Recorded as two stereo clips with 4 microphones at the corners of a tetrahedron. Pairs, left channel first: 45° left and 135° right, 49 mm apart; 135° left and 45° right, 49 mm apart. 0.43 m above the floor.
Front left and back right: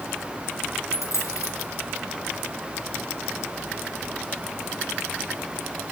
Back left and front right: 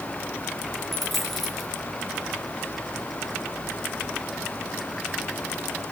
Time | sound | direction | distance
0.9 | a dropped coin | 50° left | 2.5 m